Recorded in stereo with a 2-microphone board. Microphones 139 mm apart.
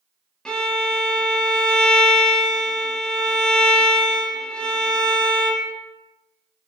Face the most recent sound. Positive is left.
turn(degrees=5)  # may be behind; listen again after turning